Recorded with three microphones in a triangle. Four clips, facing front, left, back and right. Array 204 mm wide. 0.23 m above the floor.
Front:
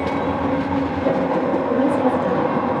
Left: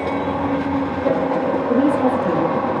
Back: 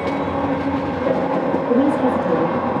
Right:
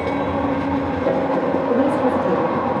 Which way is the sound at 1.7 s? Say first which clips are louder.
Left 2 dB, back 3 dB; 110° left.